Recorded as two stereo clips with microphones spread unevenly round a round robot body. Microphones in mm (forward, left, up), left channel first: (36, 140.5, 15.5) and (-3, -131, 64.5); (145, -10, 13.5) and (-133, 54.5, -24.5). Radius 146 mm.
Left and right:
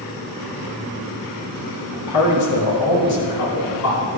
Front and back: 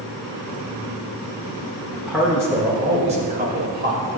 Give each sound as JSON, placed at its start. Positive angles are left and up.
{"t": 1.9, "sound": "a man speaking", "azimuth_deg": 75, "distance_m": 3.0}